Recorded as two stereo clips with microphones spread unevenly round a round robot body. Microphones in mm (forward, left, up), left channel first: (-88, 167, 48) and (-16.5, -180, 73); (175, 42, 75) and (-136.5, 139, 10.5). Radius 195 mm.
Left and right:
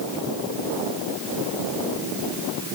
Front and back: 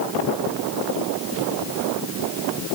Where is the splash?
I don't hear a splash.